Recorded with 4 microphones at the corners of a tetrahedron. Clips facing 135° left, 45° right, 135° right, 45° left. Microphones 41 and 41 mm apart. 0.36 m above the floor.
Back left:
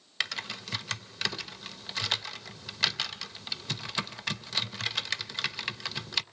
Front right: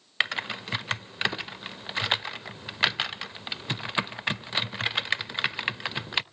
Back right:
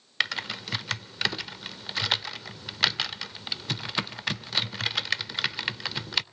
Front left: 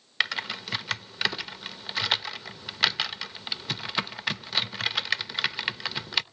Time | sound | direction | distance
0.2 | typing on a keyboard | 35° right | 0.6 m